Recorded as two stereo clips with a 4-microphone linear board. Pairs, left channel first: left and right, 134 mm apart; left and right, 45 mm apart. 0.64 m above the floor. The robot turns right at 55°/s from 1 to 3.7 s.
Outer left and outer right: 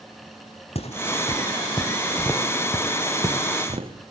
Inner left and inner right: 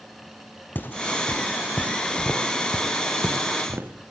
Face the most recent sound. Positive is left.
turn(degrees=-40)  # may be behind; listen again after turning